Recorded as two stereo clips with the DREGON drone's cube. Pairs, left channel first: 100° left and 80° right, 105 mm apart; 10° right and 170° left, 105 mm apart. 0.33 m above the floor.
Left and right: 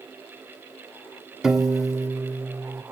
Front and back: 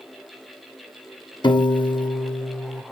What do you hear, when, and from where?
1.4 s a piano: 5° left, 0.6 m